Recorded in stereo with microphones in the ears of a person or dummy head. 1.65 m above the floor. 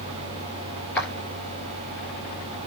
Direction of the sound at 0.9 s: 10° left (ahead or behind).